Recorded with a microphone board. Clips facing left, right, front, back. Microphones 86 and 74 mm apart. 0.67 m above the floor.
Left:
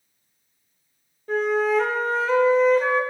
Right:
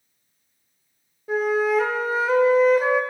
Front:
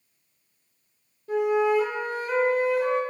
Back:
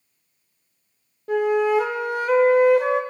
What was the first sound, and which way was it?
A flute, 175° right.